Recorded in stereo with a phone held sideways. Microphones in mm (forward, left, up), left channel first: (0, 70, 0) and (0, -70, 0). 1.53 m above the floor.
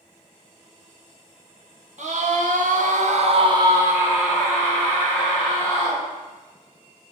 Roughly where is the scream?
Right.